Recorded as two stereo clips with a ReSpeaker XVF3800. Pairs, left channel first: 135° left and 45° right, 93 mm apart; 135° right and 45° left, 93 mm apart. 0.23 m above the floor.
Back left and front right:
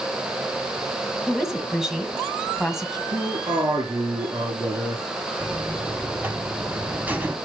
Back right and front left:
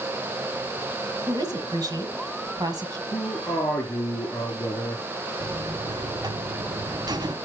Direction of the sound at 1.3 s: 40° left.